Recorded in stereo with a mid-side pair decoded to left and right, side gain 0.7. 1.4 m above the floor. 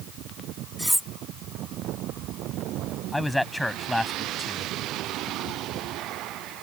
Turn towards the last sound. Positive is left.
turn(degrees=5)